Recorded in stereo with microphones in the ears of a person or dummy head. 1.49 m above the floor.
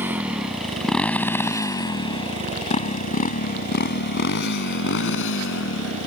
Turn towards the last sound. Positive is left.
turn(degrees=75)  # may be behind; listen again after turning